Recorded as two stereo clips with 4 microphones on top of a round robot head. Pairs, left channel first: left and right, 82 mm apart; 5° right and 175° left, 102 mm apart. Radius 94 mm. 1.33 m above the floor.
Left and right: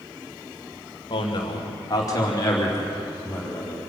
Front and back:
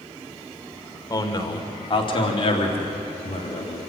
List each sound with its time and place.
1.1 s a man speaking: 50° left, 2.5 m; by 3.8 s 20° left, 4.5 m